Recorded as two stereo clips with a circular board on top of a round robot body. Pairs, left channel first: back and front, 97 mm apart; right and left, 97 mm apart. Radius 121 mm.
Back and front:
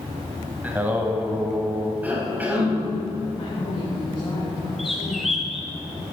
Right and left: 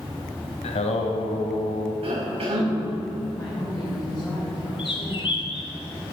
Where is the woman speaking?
145° right, 4 m.